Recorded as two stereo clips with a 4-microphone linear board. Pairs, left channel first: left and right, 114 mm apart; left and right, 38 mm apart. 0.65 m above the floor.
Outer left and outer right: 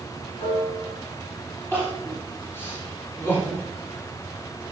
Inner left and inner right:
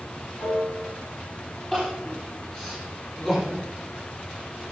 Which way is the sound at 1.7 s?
20° left (ahead or behind).